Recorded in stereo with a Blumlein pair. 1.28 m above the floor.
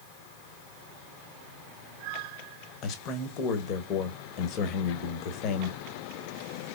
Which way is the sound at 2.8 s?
35° left.